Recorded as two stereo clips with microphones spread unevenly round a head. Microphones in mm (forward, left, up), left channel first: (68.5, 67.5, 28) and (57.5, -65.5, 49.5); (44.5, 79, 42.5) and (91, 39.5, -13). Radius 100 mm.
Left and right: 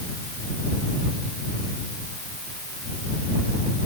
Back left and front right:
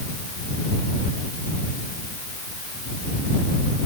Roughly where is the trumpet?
I don't hear a trumpet.